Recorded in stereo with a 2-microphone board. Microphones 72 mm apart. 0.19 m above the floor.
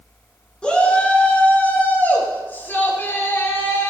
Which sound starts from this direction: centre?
A shout, at 0.6 s.